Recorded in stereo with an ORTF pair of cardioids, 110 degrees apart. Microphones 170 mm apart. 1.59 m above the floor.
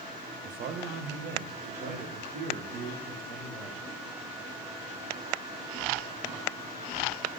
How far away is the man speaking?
About 1.0 m.